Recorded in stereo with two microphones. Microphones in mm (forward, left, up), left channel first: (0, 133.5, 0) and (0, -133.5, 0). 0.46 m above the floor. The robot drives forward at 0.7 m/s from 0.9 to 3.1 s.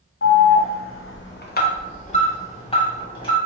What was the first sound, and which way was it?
An alarm, 55° left (ahead or behind).